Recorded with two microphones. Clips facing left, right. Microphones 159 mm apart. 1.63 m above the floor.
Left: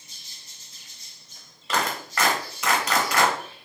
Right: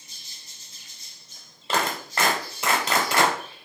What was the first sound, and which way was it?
A clap, 30° right (ahead or behind).